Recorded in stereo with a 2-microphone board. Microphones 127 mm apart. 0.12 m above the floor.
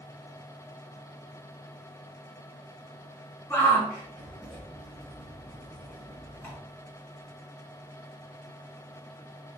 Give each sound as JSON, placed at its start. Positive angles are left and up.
{"t": 3.5, "sound": "a shout", "side_deg": 20, "distance_m": 1.3}